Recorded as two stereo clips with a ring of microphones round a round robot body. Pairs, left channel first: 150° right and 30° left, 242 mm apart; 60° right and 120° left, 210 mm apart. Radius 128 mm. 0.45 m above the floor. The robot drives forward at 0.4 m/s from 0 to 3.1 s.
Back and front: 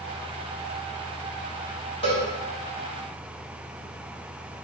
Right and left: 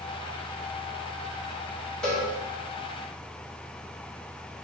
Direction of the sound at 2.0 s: 140° right.